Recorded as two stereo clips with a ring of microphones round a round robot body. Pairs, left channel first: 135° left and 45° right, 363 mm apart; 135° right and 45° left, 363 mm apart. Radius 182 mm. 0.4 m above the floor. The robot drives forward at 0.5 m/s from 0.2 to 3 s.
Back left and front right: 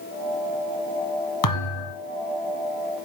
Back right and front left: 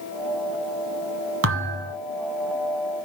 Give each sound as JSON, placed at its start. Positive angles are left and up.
{"t": 1.4, "sound": "a thud", "azimuth_deg": 100, "distance_m": 1.8}